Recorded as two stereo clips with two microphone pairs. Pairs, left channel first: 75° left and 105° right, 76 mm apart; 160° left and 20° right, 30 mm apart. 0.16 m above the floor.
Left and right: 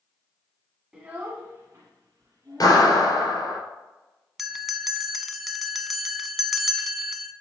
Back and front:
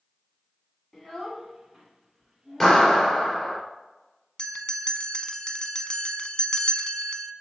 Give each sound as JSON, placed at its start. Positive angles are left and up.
{"t": 0.9, "sound": "a child speaking", "azimuth_deg": -175, "distance_m": 1.1}
{"t": 2.6, "sound": "a clap", "azimuth_deg": 95, "distance_m": 3.0}
{"t": 4.4, "sound": "a bell", "azimuth_deg": 160, "distance_m": 0.5}